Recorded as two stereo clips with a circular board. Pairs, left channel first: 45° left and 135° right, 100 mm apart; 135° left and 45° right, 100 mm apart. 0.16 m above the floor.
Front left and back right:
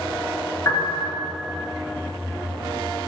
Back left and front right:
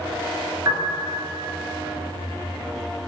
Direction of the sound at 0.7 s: Straight ahead.